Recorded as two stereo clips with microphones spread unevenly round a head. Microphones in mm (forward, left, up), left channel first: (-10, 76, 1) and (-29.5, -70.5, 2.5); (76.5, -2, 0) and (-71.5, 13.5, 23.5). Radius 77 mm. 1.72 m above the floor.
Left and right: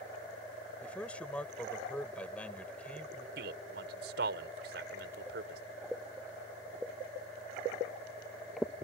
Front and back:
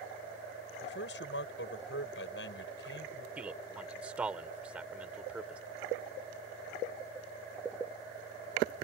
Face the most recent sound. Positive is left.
turn(degrees=-105)